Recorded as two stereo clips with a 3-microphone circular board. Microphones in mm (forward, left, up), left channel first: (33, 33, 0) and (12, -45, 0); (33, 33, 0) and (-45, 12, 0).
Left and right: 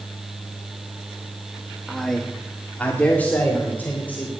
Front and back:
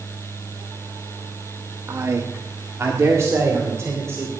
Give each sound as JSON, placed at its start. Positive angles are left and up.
{"t": 1.9, "sound": "a man speaking", "azimuth_deg": 160, "distance_m": 1.1}